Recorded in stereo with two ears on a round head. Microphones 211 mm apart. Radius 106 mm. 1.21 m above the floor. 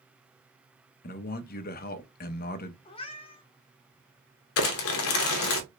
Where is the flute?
No flute in this recording.